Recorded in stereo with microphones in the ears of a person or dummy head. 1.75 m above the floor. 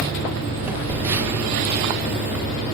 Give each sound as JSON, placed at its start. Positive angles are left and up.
{"t": 0.6, "sound": "a phone buzzing", "side_deg": -15, "distance_m": 1.8}